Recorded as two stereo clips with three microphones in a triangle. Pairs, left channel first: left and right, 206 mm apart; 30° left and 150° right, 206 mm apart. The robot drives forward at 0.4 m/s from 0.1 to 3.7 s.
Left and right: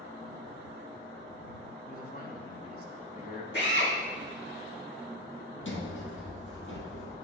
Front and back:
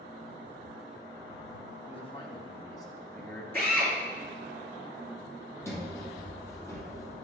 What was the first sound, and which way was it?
A man speaking, 80° left.